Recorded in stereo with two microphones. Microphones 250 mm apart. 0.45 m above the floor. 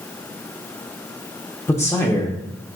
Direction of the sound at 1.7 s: 10° left (ahead or behind).